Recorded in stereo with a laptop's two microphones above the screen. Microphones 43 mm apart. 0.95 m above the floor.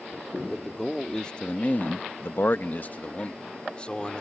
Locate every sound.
0.5 s a man speaking: 10° left (ahead or behind); by 4.2 s 20° left (ahead or behind)